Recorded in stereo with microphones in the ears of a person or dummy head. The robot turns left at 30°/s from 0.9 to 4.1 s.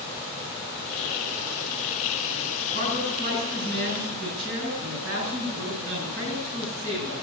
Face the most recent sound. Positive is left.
turn(degrees=-85)